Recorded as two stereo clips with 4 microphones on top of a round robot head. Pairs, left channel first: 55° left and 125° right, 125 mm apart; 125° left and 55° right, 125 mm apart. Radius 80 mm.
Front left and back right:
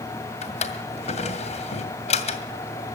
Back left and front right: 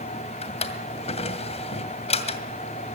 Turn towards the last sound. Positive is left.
turn(degrees=90)